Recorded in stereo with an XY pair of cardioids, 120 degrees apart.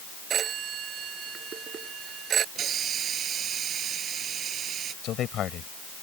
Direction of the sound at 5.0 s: 60° left.